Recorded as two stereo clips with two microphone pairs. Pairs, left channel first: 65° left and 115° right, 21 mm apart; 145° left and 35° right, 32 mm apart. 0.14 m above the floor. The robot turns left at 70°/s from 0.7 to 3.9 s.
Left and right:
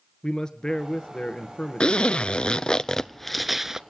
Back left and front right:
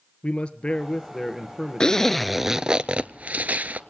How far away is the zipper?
About 0.5 m.